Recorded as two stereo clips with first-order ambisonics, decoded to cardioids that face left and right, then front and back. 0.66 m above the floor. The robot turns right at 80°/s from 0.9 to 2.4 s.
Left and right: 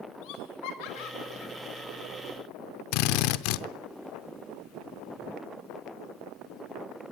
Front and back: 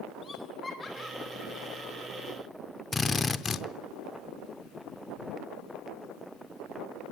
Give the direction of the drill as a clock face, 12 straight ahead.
9 o'clock.